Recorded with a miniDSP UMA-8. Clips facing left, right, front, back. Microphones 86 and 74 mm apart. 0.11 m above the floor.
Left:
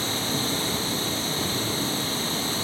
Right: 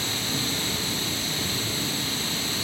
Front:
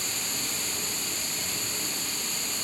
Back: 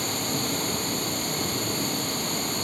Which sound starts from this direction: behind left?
Running water, at 0.0 s.